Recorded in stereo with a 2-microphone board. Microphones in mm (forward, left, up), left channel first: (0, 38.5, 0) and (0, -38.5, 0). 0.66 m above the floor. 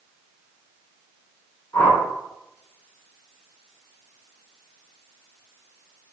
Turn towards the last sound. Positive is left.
turn(degrees=40)  # may be behind; listen again after turning